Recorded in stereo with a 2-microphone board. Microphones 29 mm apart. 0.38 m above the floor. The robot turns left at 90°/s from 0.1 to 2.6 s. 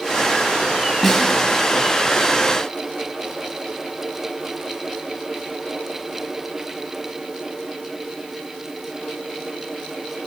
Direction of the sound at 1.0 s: 10° left (ahead or behind).